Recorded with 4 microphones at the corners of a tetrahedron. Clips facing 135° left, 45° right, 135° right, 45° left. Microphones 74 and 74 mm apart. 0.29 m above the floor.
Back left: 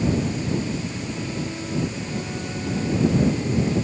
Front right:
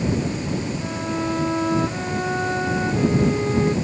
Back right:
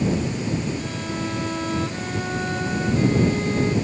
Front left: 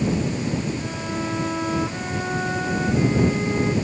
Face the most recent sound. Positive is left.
turn(degrees=-35)